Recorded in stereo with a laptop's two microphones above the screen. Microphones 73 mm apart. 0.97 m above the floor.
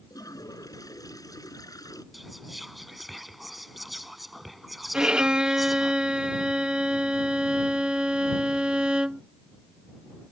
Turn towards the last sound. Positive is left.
turn(degrees=-10)  # may be behind; listen again after turning